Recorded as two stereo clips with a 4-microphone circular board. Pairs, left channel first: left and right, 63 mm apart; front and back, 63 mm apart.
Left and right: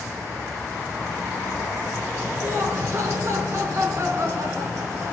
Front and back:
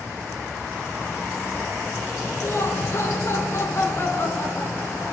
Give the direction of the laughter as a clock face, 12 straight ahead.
2 o'clock.